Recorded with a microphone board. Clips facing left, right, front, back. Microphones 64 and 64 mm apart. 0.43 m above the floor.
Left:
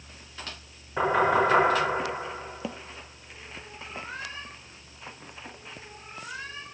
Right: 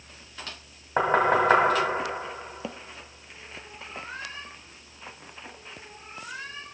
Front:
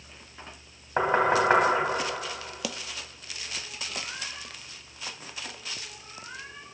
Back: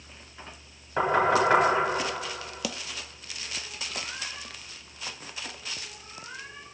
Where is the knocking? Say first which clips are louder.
Right 1 dB, even; 60° right, 2.0 m.